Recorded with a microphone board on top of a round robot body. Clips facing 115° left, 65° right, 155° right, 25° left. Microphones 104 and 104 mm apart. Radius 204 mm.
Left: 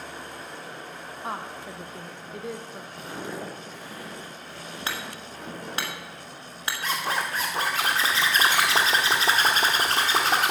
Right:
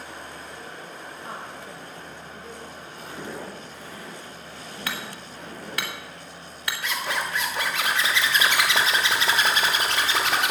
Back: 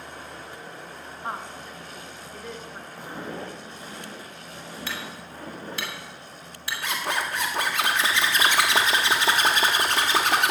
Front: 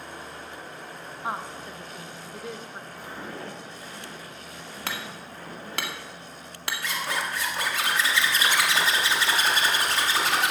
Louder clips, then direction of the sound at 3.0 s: Left 1 dB, back 3 dB; 130° left.